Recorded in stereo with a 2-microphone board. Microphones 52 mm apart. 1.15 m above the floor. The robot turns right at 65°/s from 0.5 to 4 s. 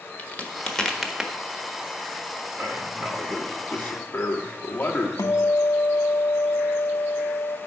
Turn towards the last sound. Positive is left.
turn(degrees=80)